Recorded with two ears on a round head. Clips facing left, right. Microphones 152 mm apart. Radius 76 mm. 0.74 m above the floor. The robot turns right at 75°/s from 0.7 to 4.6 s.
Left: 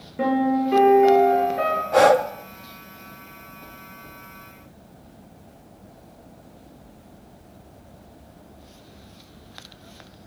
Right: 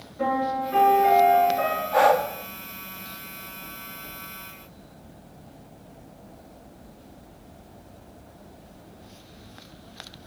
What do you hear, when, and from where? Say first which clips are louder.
0.2 s a piano: left 5 dB; 85° left, 9 m; by 1.8 s 170° left, 9 m
1.9 s breathing: left 4 dB; 50° left (ahead or behind), 1.2 m